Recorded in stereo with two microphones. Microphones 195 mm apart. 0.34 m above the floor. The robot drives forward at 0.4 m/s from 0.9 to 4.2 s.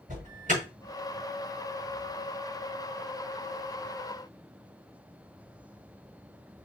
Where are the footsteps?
I don't hear footsteps.